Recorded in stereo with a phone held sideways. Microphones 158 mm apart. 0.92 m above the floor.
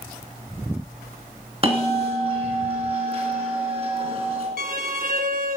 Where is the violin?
65° right (ahead or behind), 0.9 m.